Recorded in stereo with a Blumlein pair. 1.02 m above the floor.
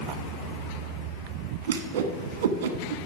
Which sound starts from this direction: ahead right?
A whoosh, at 1.7 s.